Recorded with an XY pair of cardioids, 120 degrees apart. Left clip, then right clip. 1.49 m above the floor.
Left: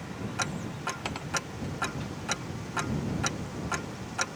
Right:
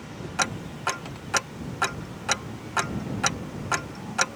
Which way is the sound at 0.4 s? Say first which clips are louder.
Right 7 dB; 40° right.